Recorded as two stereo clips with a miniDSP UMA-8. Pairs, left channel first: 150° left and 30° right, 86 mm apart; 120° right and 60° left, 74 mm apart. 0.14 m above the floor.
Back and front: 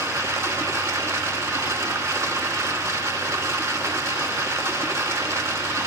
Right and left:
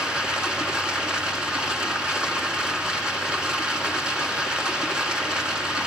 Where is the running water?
10° right, 1.4 m.